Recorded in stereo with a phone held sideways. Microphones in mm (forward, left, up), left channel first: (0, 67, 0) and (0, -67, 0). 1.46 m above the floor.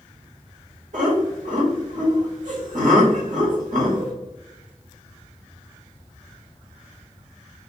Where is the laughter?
75° right (ahead or behind), 1.0 m.